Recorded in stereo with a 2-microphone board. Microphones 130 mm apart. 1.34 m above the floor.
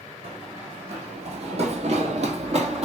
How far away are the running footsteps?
About 3.5 m.